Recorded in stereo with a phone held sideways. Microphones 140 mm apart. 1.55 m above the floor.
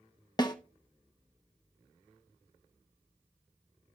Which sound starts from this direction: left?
A snare drum, at 0.4 s.